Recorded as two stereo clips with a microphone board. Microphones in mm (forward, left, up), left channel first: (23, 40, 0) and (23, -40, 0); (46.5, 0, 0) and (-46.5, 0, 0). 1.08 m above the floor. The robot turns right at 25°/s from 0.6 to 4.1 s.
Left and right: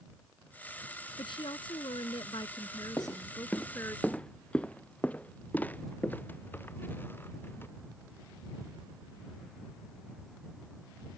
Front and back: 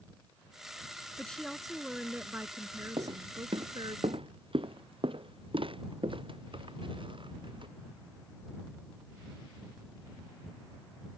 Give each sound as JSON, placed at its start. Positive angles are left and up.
{"t": 1.2, "sound": "a woman speaking", "azimuth_deg": 80}
{"t": 3.0, "sound": "footsteps", "azimuth_deg": 145}